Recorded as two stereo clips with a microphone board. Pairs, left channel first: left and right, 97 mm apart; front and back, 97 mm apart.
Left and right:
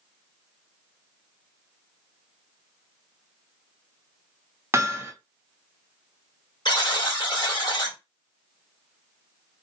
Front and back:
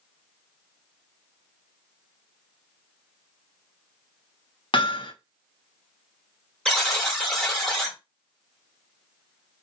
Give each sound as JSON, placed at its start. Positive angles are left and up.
{"t": 4.7, "sound": "hammering", "azimuth_deg": -30, "distance_m": 0.6}
{"t": 6.7, "sound": "a buzzer", "azimuth_deg": 85, "distance_m": 1.2}